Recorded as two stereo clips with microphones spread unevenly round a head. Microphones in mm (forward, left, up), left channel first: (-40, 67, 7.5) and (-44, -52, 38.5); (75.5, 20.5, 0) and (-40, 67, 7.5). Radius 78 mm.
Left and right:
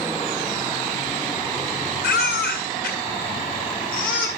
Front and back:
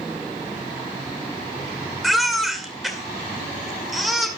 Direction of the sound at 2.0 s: 70° left.